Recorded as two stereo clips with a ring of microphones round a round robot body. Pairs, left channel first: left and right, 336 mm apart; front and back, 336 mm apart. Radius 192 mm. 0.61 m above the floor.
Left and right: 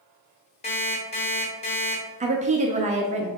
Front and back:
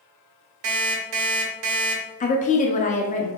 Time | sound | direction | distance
0.6 | an alarm clock | 165° left | 1.1 m
2.2 | a woman speaking | 45° right | 0.6 m